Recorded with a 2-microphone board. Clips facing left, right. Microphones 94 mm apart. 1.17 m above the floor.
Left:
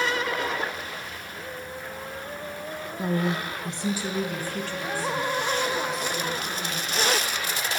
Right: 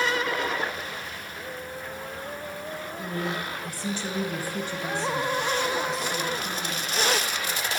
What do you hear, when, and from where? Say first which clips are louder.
3.0 s a woman speaking: left 5 dB; 65° left (ahead or behind), 0.5 m; by 6.9 s 35° right (ahead or behind), 2 m